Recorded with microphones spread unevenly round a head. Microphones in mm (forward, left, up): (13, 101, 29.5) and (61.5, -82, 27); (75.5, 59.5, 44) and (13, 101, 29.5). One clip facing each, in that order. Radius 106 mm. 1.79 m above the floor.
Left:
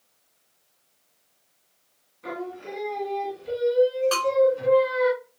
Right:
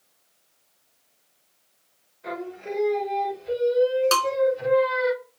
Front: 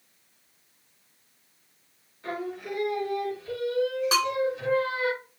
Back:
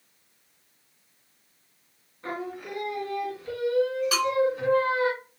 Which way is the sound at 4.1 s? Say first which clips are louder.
Left 2 dB, even; 80° right.